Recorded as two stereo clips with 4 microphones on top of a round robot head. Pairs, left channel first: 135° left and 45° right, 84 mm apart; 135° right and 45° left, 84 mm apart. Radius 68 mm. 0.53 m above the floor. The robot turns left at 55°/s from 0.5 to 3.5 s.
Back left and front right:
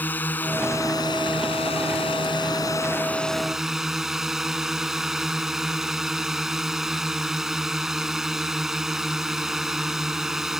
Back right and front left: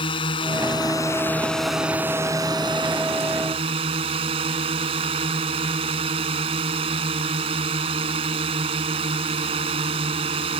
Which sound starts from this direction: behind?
A drone, at 0.0 s.